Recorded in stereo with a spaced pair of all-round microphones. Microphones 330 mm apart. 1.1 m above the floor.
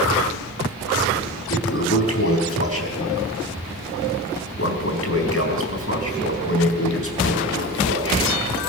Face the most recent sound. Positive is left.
turn(degrees=45)  # may be behind; listen again after turning